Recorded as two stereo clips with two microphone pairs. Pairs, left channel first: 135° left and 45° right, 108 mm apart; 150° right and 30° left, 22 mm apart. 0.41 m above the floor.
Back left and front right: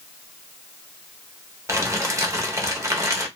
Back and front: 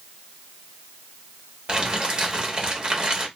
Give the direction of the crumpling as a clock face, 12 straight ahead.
12 o'clock.